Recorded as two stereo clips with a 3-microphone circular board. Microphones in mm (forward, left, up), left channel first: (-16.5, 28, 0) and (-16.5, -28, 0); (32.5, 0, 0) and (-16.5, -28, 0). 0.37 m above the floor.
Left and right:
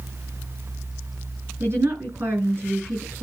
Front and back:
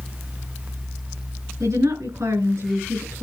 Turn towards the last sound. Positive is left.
turn(degrees=-135)